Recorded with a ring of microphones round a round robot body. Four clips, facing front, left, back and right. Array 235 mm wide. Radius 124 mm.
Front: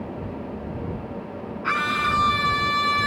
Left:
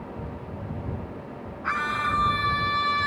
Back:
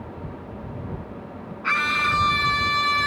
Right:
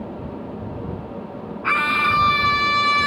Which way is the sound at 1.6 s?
100° right.